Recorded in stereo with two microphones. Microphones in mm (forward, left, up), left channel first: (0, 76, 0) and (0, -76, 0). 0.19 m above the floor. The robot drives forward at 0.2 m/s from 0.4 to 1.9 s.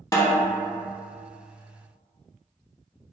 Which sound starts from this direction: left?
A snare drum, at 0.1 s.